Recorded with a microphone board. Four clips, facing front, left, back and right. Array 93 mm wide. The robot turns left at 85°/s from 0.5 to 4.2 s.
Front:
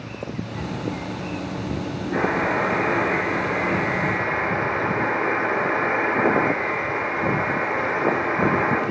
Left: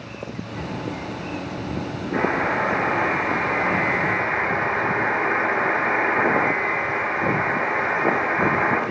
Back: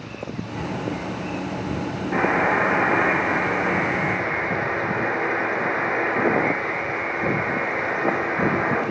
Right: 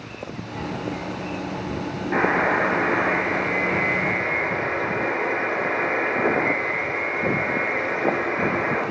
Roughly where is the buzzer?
Behind right.